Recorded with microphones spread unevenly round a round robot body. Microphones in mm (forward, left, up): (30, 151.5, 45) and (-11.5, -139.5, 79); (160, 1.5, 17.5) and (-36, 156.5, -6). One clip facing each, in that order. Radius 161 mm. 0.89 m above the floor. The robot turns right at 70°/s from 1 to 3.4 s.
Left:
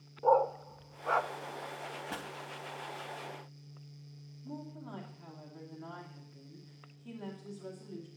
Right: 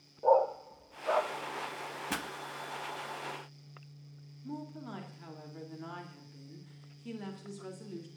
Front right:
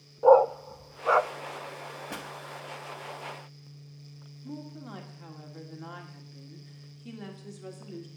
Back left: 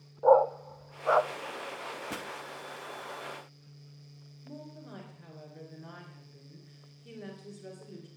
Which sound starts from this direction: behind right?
A pop, at 2.1 s.